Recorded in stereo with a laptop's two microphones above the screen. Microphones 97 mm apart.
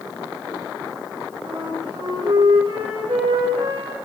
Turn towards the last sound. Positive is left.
turn(degrees=-80)